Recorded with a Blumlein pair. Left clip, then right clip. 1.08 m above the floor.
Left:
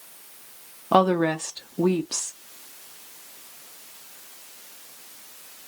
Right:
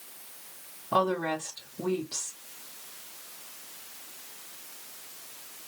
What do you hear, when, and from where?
0.9 s a woman speaking: 45° left, 1.1 m